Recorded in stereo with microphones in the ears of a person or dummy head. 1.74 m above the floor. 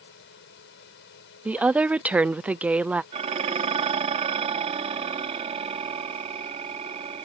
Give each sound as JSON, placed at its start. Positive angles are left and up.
{"t": 0.0, "sound": "a fan", "side_deg": 70}
{"t": 1.4, "sound": "a woman speaking", "side_deg": -10}
{"t": 3.1, "sound": "dishes clattering", "side_deg": -30}